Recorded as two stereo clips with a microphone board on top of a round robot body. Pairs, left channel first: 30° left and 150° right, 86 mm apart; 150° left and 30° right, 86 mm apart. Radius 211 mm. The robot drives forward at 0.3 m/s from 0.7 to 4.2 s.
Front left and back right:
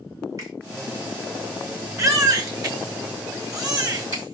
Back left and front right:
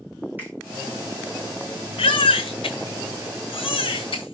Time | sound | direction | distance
0.4 | a finger snap | 100° right | 4.5 m
2.0 | a baby crying | 155° left | 1.4 m